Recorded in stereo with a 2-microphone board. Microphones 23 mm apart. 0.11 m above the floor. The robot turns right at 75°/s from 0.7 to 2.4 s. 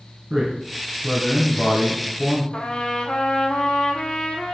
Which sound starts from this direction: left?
A trumpet, at 2.5 s.